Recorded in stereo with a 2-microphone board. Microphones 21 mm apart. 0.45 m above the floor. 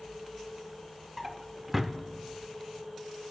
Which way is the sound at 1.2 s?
10° right (ahead or behind).